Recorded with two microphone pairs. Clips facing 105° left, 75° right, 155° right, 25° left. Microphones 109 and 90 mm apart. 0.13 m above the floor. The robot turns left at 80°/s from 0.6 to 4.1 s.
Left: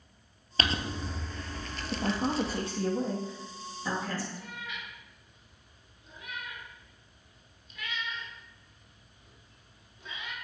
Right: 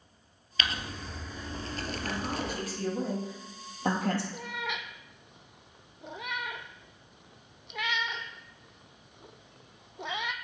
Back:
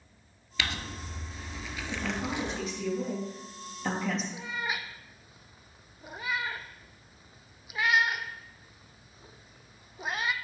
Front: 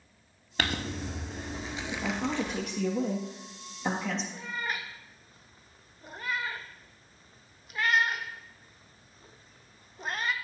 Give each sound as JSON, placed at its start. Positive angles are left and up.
{"t": 0.6, "sound": "crumpling", "azimuth_deg": 60, "distance_m": 1.0}
{"t": 1.9, "sound": "a man speaking", "azimuth_deg": 105, "distance_m": 2.5}
{"t": 4.3, "sound": "a cat meowing", "azimuth_deg": -70, "distance_m": 0.7}